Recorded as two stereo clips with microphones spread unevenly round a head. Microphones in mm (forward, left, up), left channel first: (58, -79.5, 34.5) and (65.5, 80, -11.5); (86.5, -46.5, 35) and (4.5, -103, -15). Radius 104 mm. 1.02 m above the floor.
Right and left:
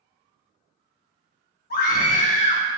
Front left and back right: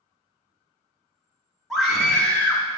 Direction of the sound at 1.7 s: 60° right.